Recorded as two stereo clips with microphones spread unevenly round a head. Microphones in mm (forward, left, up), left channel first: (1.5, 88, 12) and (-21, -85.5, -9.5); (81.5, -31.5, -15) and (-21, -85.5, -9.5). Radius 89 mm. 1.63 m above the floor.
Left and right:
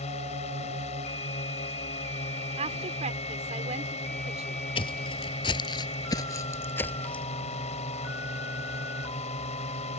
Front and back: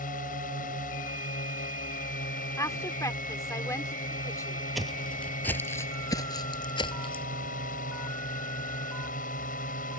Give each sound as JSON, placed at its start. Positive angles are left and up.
{"t": 0.0, "sound": "a drone", "azimuth_deg": 25}
{"t": 2.6, "sound": "a woman speaking", "azimuth_deg": -35}
{"t": 4.8, "sound": "footsteps", "azimuth_deg": 120}